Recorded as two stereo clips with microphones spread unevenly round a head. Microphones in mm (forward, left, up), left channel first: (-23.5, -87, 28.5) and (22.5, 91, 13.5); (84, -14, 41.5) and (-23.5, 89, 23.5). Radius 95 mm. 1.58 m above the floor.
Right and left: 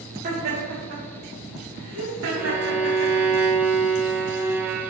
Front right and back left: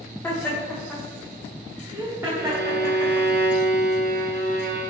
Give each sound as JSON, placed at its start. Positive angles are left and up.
{"t": 0.2, "sound": "laughter", "azimuth_deg": 30, "distance_m": 2.5}
{"t": 2.4, "sound": "a violin", "azimuth_deg": 155, "distance_m": 1.1}